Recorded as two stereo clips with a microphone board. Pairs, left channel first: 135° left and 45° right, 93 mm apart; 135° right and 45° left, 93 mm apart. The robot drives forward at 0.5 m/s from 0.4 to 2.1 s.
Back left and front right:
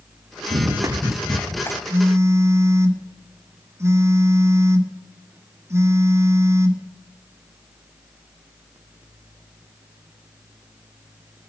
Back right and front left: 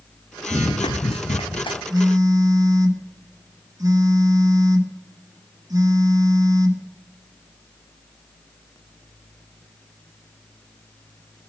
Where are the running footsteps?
75° right, 1.3 m; by 1.8 s 165° right, 1.9 m.